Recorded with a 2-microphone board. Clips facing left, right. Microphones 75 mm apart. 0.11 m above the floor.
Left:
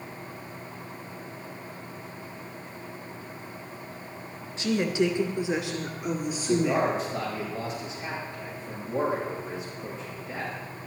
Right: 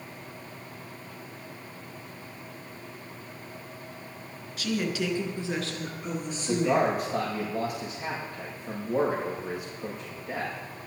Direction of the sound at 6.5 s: 60° right (ahead or behind).